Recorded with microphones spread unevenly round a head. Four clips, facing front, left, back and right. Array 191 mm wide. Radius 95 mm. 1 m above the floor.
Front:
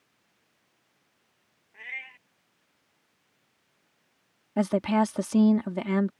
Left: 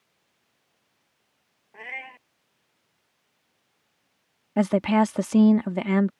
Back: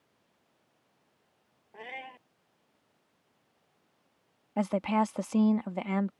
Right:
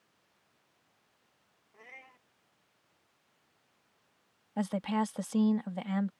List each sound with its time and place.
1.7 s a cat meowing: 145° left
4.6 s a woman speaking: 60° left